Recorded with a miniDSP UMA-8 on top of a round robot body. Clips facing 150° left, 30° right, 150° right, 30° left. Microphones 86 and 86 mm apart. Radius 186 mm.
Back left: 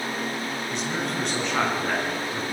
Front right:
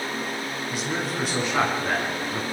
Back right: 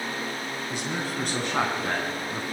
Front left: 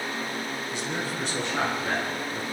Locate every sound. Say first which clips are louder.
0.7 s a man speaking: front right 1 dB, back right 2 dB; 115° right, 6 m